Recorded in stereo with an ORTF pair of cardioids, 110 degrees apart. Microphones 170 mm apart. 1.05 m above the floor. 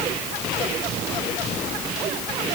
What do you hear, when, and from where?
Only background noise.